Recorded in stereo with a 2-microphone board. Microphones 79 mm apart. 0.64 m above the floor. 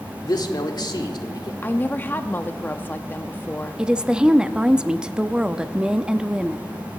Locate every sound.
0.2 s a man speaking: 60° left (ahead or behind), 1.7 m
1.6 s a woman speaking: 25° left (ahead or behind), 0.6 m
3.8 s a woman speaking: 10° right (ahead or behind), 0.5 m